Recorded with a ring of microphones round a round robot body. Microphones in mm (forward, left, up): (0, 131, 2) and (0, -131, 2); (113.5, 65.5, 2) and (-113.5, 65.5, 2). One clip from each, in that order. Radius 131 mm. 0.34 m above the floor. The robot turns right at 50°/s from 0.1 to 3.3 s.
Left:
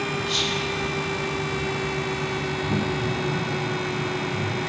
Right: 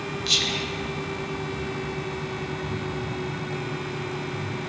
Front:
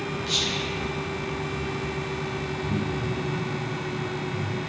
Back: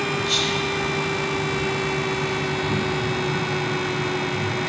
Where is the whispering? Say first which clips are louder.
Right 4 dB, back 2 dB; 115° right, 1.3 m; by 0.7 s 95° right, 1.3 m.